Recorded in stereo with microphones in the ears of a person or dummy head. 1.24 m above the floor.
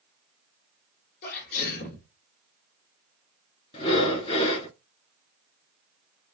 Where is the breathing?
35° left (ahead or behind), 2 m.